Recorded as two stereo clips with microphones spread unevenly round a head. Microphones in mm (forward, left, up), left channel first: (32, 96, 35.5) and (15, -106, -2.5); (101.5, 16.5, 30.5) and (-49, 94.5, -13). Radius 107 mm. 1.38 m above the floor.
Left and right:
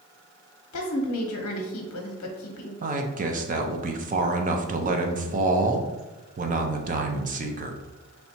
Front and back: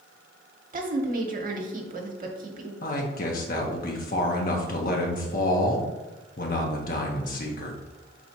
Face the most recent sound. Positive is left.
turn(degrees=-75)